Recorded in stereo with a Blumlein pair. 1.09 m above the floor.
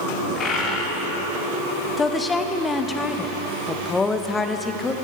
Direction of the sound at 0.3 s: 30° left.